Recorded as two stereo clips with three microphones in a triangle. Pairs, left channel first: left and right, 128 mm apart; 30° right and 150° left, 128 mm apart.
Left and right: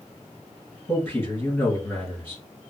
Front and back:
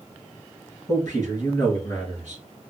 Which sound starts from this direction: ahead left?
A man speaking, at 0.9 s.